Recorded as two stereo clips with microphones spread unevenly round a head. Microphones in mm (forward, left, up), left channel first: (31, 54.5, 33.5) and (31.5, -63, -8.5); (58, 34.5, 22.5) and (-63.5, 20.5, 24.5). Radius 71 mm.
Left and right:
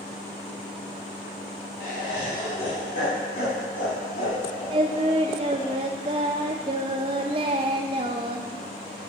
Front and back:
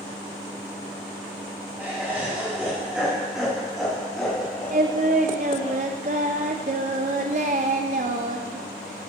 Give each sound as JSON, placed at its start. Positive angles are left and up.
{"t": 1.8, "sound": "laughter", "azimuth_deg": 120, "distance_m": 3.5}
{"t": 4.7, "sound": "singing", "azimuth_deg": -155, "distance_m": 0.6}